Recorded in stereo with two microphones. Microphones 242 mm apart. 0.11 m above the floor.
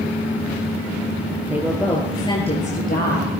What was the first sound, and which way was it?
A woman speaking, 10° right (ahead or behind).